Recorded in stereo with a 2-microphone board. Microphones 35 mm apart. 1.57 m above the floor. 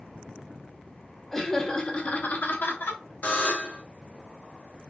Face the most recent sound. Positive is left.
turn(degrees=50)  # may be behind; listen again after turning